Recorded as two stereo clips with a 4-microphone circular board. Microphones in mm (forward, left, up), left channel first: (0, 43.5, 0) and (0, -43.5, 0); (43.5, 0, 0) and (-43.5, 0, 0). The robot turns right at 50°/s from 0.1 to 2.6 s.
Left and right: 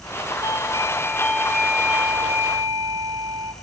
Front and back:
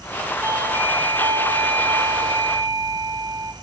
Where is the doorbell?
120° left, 6 m; by 3.5 s 130° right, 6 m.